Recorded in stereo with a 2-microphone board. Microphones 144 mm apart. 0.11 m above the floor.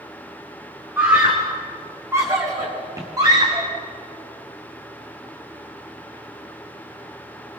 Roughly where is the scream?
Centre.